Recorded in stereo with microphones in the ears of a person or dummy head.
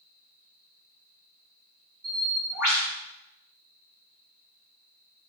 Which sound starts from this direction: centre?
A bird, at 2.0 s.